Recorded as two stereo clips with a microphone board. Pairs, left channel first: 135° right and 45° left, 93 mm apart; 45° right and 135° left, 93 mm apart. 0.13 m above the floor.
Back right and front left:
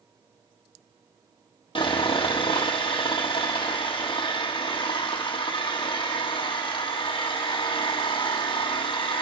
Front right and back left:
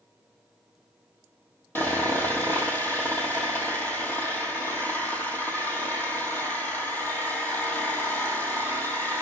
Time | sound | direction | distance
1.8 | sawing | 110° right | 2.5 m